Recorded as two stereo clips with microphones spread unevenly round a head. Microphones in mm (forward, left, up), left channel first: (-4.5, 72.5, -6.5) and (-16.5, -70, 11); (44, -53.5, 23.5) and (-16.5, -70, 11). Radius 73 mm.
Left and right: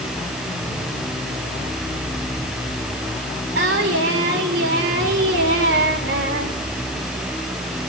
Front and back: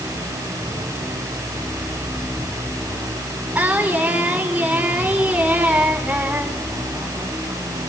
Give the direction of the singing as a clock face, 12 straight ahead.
3 o'clock.